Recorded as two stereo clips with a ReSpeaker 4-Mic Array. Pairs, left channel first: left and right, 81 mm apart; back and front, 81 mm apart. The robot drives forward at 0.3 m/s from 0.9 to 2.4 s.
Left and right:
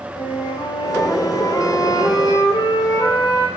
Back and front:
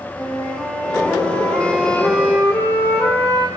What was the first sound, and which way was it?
A flute, 100° left.